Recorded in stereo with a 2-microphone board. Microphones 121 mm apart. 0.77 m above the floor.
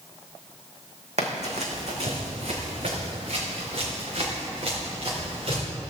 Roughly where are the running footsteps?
Right.